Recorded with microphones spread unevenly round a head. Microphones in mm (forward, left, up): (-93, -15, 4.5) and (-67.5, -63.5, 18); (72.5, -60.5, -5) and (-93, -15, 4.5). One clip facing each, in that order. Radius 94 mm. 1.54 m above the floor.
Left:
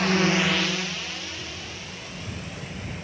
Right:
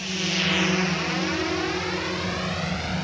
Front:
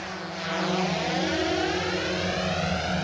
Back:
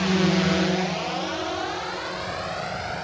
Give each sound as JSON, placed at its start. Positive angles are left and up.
{"t": 0.0, "sound": "a drone", "azimuth_deg": 150}